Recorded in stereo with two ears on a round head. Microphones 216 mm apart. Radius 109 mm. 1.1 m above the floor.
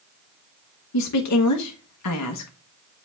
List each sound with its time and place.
0.9 s a woman speaking: 75° left (ahead or behind), 1.1 m